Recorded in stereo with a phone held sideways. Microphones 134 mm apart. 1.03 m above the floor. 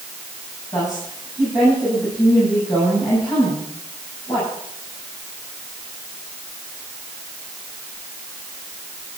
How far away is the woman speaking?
About 8 m.